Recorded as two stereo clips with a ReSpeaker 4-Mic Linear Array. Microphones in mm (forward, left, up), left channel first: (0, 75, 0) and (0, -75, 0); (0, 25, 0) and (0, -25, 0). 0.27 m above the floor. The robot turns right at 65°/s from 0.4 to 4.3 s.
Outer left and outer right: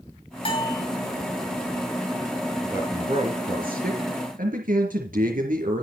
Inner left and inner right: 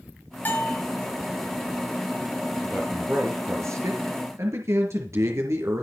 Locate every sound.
0.5 s a bell: 35° left (ahead or behind), 5 m; by 0.8 s 10° left (ahead or behind), 5 m
2.6 s a man speaking: 175° right, 4 m; by 5.8 s 65° right, 4 m